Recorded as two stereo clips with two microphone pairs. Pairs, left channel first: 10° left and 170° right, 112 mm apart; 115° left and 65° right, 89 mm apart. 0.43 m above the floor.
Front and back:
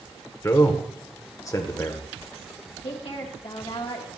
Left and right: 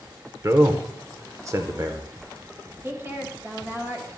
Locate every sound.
0.4 s a man speaking: 35° right, 0.9 m
2.8 s a woman speaking: 5° right, 1.8 m